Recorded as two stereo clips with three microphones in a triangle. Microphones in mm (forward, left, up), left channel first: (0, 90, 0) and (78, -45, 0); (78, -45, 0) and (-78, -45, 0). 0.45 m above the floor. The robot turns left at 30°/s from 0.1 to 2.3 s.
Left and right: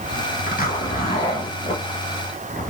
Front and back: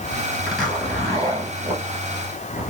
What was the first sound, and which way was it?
A zipper, 90° left.